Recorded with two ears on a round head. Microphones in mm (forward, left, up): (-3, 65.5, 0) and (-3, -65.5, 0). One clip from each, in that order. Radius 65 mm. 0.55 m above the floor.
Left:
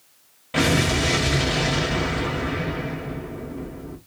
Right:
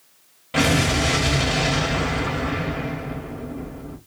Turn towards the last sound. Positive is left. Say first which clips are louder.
# right 1 dB
turn(degrees=0)  # may be behind; listen again after turning